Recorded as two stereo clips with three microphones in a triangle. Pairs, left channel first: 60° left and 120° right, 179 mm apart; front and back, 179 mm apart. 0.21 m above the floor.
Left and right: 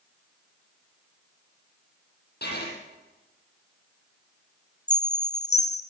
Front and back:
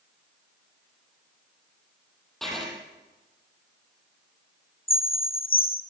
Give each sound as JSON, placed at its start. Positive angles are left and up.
{"t": 2.4, "sound": "writing", "azimuth_deg": 90, "distance_m": 6.5}
{"t": 4.9, "sound": "a chime", "azimuth_deg": 35, "distance_m": 1.9}